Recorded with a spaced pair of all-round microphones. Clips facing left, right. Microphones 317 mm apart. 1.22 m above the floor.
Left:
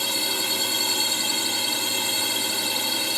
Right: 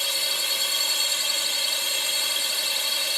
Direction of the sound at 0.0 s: 65° left (ahead or behind).